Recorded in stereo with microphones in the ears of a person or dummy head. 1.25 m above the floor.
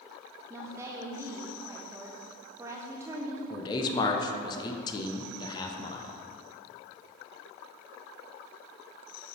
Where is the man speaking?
20° left (ahead or behind), 0.6 m.